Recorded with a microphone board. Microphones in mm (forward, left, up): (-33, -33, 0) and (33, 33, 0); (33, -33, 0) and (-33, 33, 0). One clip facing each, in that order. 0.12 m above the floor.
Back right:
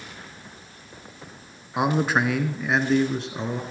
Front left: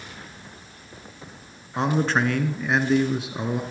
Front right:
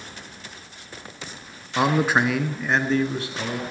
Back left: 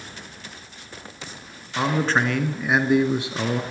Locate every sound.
1.8 s a man speaking: 80° right, 1.1 m; by 3.6 s 115° left, 1.1 m